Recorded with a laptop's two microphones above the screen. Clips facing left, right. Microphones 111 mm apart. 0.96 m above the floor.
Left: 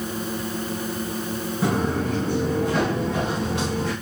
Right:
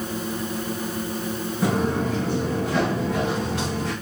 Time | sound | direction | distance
1.6 | footsteps | 5° left (ahead or behind) | 4 m